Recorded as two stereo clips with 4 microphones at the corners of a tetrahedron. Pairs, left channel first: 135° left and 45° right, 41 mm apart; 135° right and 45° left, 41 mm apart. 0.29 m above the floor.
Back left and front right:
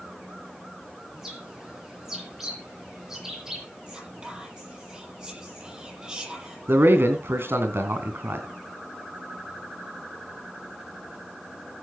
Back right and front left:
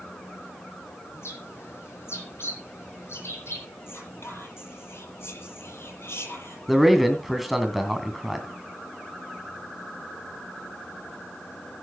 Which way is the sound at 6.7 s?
45° right.